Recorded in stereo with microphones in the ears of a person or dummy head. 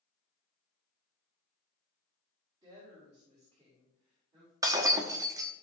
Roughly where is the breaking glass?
Right.